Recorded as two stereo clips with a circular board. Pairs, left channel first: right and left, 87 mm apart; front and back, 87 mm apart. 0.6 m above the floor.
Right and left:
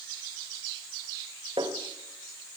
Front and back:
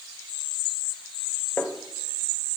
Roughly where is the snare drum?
Left.